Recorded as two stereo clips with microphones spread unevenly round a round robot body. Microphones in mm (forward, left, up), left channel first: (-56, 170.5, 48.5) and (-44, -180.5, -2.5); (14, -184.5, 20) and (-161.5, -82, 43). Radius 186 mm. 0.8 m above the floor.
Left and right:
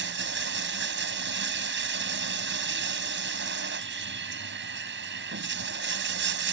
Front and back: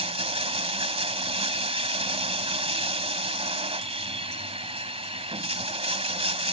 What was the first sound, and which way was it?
Running water, 150° right.